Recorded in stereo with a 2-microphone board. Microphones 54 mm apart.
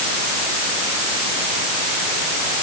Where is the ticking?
No ticking in this recording.